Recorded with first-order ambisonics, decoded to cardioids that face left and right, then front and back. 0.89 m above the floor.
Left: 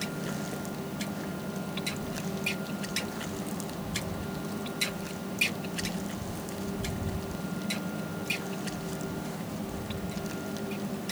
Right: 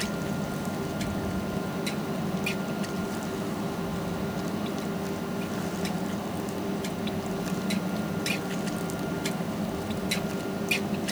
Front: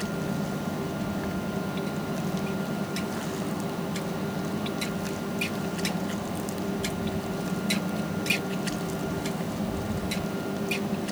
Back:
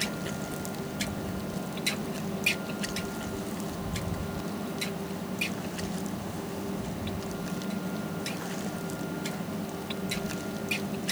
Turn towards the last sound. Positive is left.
No sound to turn to.